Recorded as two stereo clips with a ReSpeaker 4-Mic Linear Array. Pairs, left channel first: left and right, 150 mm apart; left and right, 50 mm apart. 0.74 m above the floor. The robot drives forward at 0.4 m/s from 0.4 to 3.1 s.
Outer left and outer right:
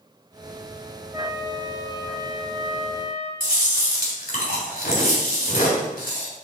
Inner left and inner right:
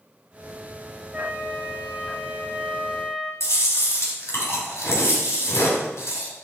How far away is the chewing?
About 2.5 m.